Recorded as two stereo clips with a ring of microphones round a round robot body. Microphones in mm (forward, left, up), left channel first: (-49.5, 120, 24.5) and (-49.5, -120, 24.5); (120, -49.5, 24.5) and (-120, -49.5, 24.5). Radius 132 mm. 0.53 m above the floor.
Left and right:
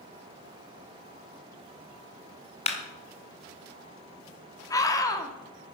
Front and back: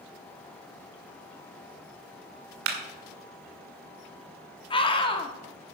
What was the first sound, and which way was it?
A clap, 150° left.